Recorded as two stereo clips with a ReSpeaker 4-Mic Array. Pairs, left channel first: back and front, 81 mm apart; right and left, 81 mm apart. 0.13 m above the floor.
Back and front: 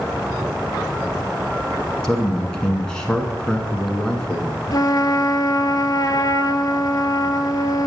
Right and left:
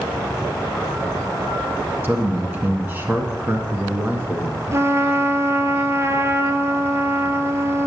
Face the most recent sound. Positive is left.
turn(degrees=145)